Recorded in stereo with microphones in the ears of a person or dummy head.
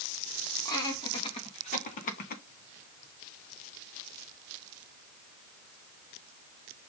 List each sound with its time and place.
0.7 s laughter: 20° left (ahead or behind), 2.5 m; by 2.4 s 50° left (ahead or behind), 1.6 m